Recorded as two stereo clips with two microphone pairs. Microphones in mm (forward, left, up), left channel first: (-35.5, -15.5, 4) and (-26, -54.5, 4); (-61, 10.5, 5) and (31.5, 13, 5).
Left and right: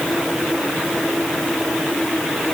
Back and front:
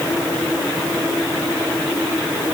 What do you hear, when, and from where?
Only background noise.